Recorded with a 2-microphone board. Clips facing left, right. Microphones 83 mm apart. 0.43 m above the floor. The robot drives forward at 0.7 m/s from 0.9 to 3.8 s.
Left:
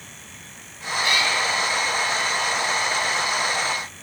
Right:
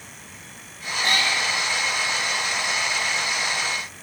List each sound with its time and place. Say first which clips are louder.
1.0 s a cat meowing: even; 50° right (ahead or behind), 1.5 m; by 1.4 s 45° right (ahead or behind), 1.7 m